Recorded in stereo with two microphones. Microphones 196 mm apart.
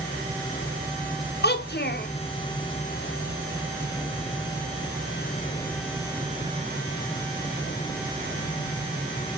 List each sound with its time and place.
1.4 s a child speaking: 55° left (ahead or behind), 0.7 m